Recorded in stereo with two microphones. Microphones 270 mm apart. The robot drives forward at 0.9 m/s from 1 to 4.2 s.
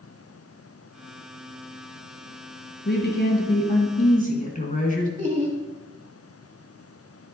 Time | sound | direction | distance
2.9 | a woman speaking | 40° left (ahead or behind) | 1.5 m
5.2 | laughter | 25° right (ahead or behind) | 1.0 m